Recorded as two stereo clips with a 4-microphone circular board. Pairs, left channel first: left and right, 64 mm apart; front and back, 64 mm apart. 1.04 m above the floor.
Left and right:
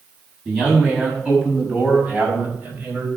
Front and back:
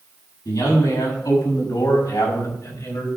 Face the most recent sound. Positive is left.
turn(degrees=-30)